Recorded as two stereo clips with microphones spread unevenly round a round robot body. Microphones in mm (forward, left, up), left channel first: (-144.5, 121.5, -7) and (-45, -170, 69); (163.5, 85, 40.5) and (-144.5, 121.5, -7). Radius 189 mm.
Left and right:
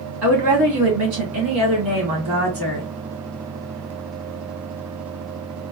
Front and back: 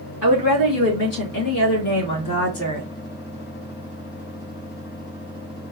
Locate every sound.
0.2 s a woman speaking: 55° right, 3 m; by 2.9 s 25° right, 3 m